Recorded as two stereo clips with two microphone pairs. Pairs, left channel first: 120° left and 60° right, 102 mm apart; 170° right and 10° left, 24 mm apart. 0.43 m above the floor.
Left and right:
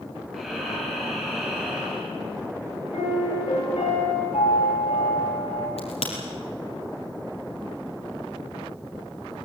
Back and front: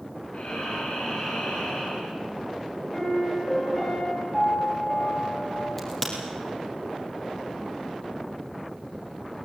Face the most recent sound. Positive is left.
turn(degrees=115)